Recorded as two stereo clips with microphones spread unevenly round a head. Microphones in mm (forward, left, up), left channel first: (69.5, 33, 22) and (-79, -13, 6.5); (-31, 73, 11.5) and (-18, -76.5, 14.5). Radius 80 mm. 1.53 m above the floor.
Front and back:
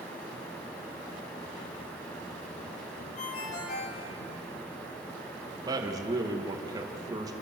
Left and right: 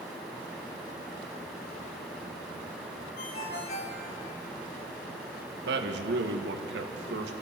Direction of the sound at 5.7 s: 95° right.